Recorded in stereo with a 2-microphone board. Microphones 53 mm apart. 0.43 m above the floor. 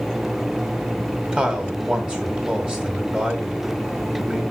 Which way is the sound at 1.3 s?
25° right (ahead or behind).